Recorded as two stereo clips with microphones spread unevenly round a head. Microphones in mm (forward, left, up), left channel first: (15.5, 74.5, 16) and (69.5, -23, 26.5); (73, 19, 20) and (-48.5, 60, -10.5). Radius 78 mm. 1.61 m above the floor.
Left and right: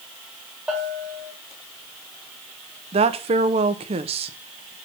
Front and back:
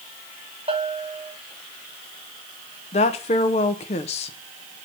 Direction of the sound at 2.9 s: 45° right.